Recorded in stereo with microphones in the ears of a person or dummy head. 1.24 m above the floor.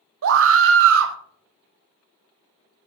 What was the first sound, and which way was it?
A scream, 75° right (ahead or behind).